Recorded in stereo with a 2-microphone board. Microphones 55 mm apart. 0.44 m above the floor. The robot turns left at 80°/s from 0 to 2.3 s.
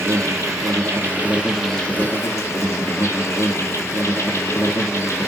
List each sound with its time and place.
0.0 s an insect: 50° right, 1.2 m; by 5.3 s 125° left, 1.2 m